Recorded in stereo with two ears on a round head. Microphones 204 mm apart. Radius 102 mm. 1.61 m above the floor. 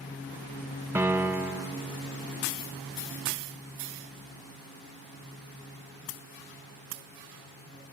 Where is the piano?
10° right (ahead or behind), 1.0 m.